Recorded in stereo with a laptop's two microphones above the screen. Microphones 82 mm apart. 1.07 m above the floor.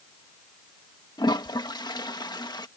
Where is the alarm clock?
No alarm clock in this recording.